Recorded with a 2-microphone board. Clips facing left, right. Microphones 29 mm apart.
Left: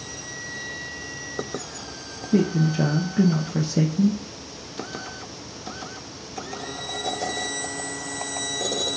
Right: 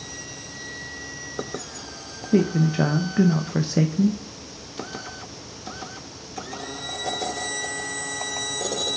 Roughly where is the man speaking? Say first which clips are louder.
Right 1 dB; right.